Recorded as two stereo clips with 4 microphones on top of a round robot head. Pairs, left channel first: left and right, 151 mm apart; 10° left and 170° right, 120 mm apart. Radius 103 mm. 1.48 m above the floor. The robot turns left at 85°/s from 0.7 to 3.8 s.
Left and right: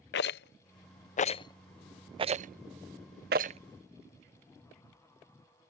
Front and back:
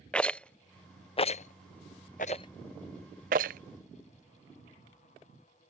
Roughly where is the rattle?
Left.